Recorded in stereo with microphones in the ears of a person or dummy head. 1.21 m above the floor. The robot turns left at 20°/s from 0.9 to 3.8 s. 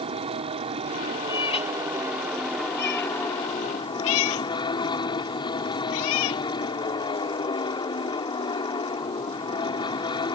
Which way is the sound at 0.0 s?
150° right.